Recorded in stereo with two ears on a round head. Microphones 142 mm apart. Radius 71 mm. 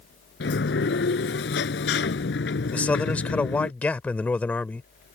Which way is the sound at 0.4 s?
85° left.